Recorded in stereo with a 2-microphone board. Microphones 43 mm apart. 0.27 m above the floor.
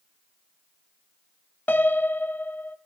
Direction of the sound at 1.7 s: 45° left (ahead or behind).